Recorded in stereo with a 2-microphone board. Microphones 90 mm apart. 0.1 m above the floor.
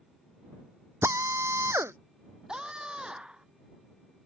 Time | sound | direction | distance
1.0 | a drill | 30° right (ahead or behind) | ?
2.5 | a scream | 10° right (ahead or behind) | ?